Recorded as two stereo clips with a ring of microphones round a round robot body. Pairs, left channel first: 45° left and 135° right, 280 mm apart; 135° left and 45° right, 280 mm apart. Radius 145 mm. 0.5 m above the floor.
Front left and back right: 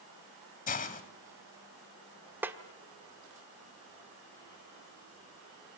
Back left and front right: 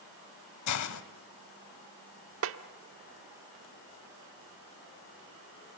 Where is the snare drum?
55° right, 1.1 m.